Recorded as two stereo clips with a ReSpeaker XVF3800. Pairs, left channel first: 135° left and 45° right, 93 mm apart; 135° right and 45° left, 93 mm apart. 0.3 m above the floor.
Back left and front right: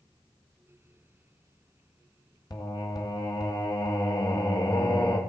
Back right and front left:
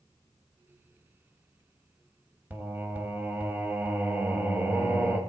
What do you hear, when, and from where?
2.5 s singing: 110° left, 1.3 m